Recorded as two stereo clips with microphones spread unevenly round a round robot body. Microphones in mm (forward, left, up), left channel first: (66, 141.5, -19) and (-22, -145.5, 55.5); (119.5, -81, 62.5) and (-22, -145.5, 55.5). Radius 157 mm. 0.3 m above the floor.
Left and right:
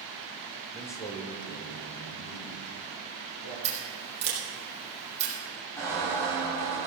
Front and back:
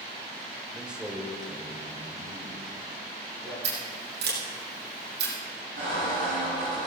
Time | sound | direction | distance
0.7 | a man speaking | 135° left | 1.0 m
3.6 | scissors | 175° right | 4.5 m
5.8 | a squeak | 150° left | 5.5 m